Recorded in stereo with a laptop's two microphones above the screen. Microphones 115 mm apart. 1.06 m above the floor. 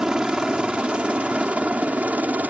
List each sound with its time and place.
0.0 s a helicopter: 5° right (ahead or behind); by 2.5 s 15° right (ahead or behind)